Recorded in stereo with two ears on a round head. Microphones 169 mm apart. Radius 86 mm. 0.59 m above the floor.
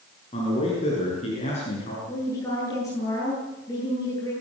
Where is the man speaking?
30° left (ahead or behind), 8 m; by 2.0 s 35° left (ahead or behind), 7.5 m.